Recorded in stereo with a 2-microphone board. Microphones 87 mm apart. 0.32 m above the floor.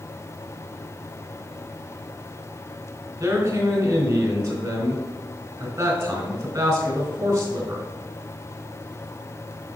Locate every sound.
3.2 s a man speaking: 40° right (ahead or behind), 3 m